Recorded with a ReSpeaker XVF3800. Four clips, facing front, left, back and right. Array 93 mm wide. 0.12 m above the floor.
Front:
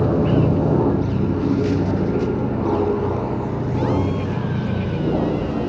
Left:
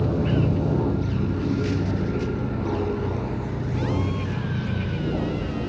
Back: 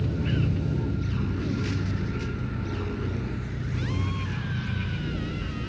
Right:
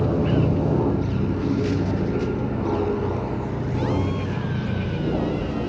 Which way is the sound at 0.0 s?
10° right.